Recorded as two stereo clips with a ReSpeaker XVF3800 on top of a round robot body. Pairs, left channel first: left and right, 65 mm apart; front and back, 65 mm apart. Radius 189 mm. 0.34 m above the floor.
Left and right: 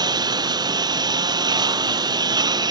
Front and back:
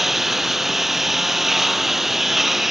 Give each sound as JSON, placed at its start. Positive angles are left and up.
{"t": 0.0, "sound": "a lawn mower", "azimuth_deg": -95}